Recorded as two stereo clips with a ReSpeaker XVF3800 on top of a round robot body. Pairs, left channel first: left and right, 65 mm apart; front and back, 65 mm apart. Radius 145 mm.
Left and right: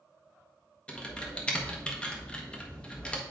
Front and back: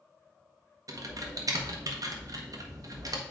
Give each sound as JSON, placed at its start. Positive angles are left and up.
{"t": 0.9, "sound": "typing on a keyboard", "azimuth_deg": 160, "distance_m": 1.3}